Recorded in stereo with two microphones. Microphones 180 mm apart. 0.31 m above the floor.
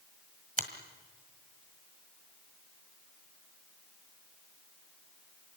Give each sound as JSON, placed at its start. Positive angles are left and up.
{"t": 0.6, "sound": "a finger snap", "side_deg": -50, "distance_m": 1.8}